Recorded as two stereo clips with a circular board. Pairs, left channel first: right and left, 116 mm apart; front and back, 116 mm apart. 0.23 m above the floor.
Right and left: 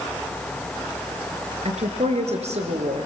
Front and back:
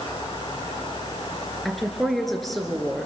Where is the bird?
I don't hear a bird.